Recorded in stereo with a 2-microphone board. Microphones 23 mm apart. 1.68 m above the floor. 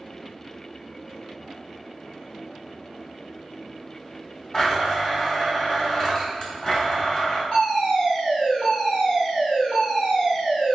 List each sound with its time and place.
4.5 s a blender: 35° left (ahead or behind), 1.7 m
7.5 s a fire alarm: 40° left (ahead or behind), 1.3 m